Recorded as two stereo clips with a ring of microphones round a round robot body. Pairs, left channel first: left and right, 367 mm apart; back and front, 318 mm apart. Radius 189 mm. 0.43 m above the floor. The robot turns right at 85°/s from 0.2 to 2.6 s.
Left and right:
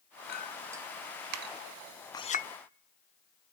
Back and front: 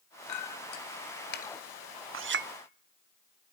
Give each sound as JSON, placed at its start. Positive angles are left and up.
{"t": 0.3, "sound": "a clink", "azimuth_deg": 150, "distance_m": 1.4}
{"t": 2.1, "sound": "a clink", "azimuth_deg": 15, "distance_m": 1.0}